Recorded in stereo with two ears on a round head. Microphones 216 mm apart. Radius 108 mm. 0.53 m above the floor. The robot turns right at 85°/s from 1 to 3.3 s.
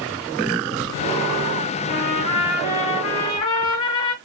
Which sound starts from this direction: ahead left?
A trumpet, at 1.9 s.